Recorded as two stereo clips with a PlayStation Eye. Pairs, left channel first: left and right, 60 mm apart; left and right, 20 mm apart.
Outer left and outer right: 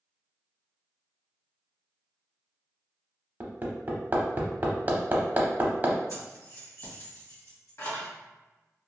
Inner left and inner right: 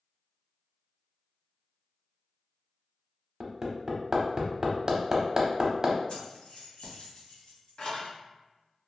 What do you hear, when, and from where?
3.4 s hammering: 30° right (ahead or behind), 0.7 m
6.1 s keys jangling: 55° left (ahead or behind), 1.4 m